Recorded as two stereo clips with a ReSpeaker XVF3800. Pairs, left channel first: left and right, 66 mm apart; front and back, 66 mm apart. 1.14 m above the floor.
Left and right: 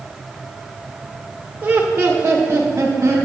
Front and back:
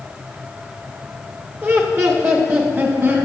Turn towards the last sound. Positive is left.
turn(degrees=-140)